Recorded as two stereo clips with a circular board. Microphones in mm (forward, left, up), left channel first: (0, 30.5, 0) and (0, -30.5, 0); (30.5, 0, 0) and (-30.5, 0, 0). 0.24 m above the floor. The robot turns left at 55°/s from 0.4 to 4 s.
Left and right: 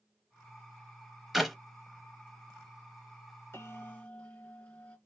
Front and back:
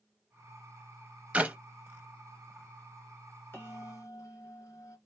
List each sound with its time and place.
1.3 s a clap: 170° right, 0.9 m; by 1.6 s straight behind, 0.9 m
3.5 s a bell: 45° left, 2.5 m; by 5.0 s 20° left, 2.5 m